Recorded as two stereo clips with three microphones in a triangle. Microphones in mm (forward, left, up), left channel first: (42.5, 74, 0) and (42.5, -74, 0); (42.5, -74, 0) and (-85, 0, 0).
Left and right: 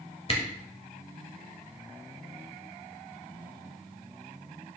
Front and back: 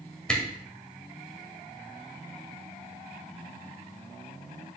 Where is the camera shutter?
55° left, 1.7 m.